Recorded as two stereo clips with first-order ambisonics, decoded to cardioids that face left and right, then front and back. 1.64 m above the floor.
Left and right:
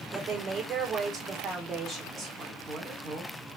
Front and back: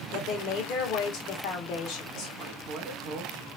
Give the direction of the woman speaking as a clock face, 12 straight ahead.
1 o'clock.